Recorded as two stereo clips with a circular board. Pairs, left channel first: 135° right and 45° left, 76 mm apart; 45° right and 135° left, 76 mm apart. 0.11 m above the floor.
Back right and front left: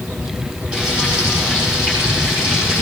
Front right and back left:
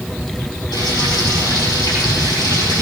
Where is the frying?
25° right, 5 m.